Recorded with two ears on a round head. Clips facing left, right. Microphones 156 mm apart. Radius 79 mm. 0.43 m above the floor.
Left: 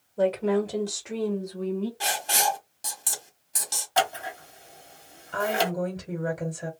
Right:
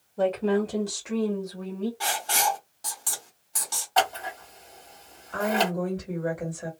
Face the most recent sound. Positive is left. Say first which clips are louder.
# right 1 dB
turn(degrees=25)  # may be behind; listen again after turning